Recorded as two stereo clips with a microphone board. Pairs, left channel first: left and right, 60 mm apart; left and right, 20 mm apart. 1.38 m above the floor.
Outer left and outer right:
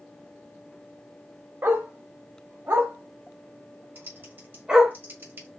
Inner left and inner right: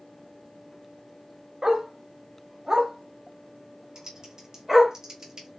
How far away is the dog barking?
About 1.2 m.